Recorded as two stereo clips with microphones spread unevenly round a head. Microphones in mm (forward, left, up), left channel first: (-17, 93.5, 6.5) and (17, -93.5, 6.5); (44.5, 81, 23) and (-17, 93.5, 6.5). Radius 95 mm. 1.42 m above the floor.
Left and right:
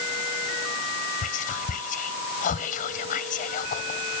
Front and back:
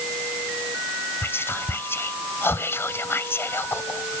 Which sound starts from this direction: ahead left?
Whispering, at 1.2 s.